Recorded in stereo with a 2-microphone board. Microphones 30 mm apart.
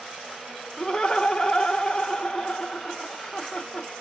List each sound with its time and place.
0.8 s laughter: 25° left (ahead or behind), 0.8 m